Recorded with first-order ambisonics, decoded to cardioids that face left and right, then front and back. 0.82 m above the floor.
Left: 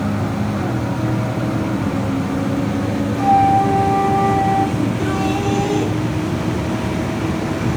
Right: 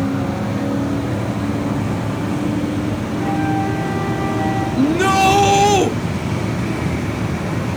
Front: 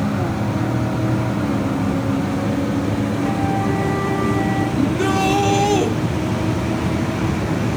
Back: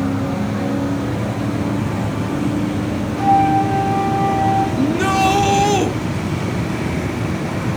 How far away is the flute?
About 9 m.